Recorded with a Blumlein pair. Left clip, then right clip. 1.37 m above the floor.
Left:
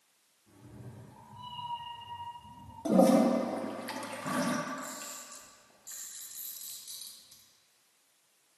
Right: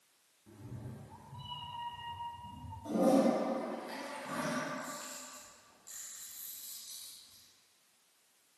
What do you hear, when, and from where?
0.5 s a cat meowing: 25° right, 1.7 m; by 2.8 s 20° right, 4 m
2.9 s a toilet flushing: 55° left, 0.8 m
4.7 s a camera shutter: 15° left, 1.5 m